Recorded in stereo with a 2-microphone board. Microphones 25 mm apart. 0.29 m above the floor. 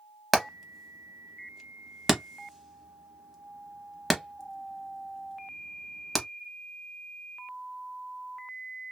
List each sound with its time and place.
0.3 s hammering: centre (ahead or behind), 0.7 m